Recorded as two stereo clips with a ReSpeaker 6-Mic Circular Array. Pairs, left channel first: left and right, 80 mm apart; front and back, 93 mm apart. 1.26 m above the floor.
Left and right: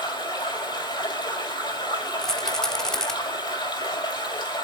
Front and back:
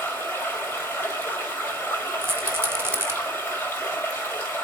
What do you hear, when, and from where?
0.0 s running water: 70° left, 4.5 m
2.2 s a rattle: 160° left, 0.9 m